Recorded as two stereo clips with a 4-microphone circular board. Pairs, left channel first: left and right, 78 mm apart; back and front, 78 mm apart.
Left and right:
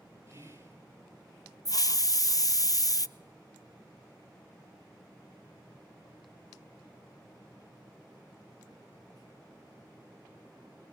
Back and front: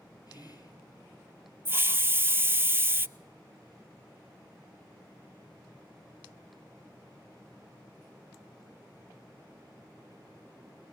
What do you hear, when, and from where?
0.3 s whispering: 145° right, 3.5 m
1.6 s a hiss: 60° left, 0.5 m